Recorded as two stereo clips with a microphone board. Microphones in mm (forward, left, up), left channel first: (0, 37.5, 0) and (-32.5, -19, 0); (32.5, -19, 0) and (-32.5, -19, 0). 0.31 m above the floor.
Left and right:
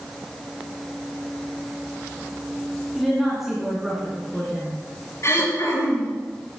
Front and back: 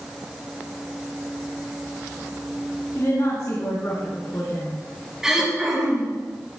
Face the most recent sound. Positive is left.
turn(degrees=95)